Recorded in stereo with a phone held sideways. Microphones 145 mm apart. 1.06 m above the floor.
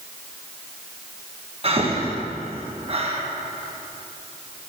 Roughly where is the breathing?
Right.